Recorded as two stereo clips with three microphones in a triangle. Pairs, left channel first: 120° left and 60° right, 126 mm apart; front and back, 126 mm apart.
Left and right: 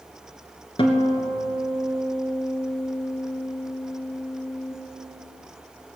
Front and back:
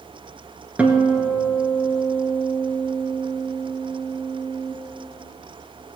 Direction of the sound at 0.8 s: 105° left.